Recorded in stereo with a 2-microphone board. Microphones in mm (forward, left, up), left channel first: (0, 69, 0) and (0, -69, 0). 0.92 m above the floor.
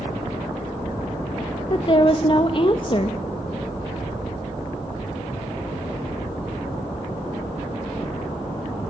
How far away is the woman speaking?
About 1.0 m.